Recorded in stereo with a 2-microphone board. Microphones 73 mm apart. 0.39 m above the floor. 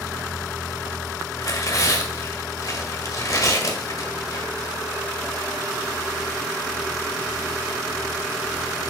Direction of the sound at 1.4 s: 50° left (ahead or behind).